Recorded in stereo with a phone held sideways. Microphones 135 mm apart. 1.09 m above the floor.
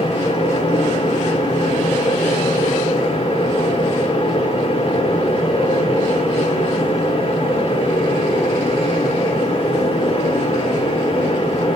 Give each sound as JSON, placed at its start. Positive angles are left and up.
{"t": 0.0, "sound": "a fan", "side_deg": 45, "distance_m": 1.1}